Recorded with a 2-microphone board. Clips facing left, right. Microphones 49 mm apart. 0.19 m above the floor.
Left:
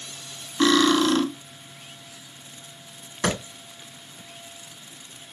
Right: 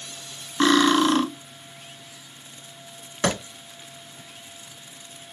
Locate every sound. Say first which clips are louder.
0.6 s cutlery clinking: right 1 dB; 25° right (ahead or behind), 0.6 m
3.2 s a clap: right 1 dB; 55° right (ahead or behind), 2.5 m